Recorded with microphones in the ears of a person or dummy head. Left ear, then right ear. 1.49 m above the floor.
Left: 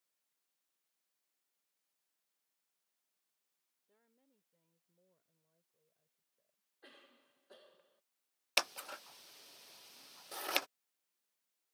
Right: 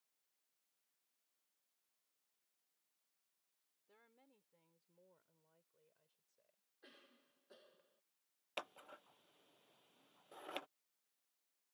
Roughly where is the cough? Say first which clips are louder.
Left 5 dB; left.